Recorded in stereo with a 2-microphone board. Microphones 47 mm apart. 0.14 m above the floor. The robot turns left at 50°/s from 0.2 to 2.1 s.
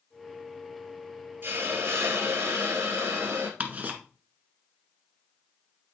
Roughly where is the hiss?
Ahead right.